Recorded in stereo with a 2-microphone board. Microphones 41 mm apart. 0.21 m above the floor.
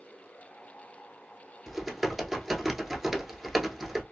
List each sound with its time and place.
1.7 s typing on a keyboard: 5° right (ahead or behind), 0.7 m